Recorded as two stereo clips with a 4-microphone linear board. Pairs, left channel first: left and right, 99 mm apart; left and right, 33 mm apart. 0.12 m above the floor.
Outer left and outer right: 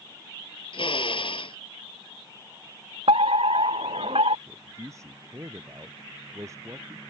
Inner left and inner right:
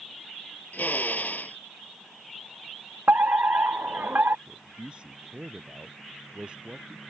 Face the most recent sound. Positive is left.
turn(degrees=-30)  # may be behind; listen again after turning